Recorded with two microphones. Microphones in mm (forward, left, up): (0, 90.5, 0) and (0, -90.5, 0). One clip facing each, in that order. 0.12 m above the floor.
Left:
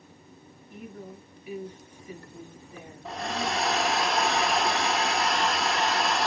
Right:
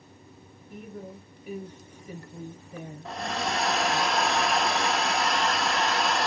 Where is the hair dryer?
Centre (ahead or behind), 0.6 m.